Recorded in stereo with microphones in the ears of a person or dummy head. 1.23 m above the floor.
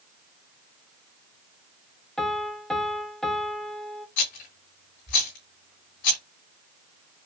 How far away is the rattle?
About 3 m.